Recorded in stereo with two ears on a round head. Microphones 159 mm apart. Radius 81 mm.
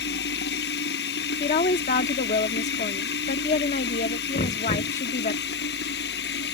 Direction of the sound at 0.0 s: 60° left (ahead or behind).